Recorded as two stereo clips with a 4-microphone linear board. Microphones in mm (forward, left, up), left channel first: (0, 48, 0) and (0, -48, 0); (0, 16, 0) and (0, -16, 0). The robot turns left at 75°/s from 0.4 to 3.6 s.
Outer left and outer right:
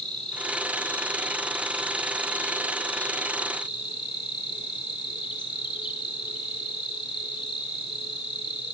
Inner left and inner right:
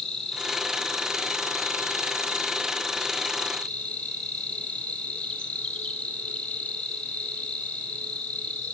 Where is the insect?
10° left, 1.8 m; by 8.8 s 130° left, 1.8 m.